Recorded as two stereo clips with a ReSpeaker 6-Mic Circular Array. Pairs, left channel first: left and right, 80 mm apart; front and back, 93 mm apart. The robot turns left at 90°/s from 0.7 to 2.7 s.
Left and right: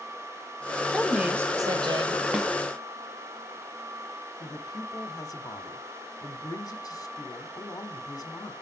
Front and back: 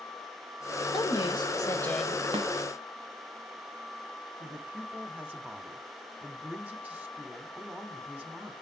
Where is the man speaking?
115° left, 1.6 m.